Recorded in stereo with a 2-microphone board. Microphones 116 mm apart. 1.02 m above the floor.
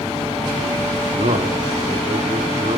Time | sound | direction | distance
0.9 | a man speaking | 70° right (ahead or behind) | 2 m